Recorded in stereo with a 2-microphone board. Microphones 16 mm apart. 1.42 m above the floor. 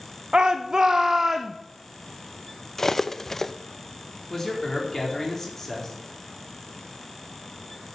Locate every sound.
0.3 s a shout: 65° right (ahead or behind), 0.7 m; by 1.6 s 20° right (ahead or behind), 0.9 m
2.8 s cutlery clinking: 20° left (ahead or behind), 0.6 m
4.3 s a man speaking: 20° left (ahead or behind), 4.5 m